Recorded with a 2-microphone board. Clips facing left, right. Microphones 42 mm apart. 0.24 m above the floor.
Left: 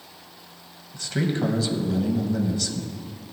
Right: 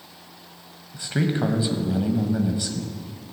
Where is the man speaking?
20° right (ahead or behind), 1.0 m.